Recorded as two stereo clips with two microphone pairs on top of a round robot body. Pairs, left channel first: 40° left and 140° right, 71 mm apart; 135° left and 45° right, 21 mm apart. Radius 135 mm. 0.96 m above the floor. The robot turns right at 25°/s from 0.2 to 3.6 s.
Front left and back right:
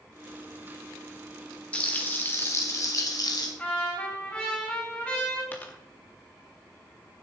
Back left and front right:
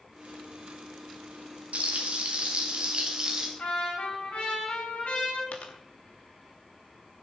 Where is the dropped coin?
115° left, 0.8 m.